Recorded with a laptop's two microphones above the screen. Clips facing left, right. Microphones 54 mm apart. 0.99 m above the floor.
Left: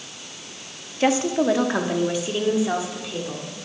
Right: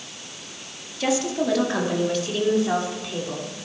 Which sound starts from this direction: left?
A woman speaking, at 1.0 s.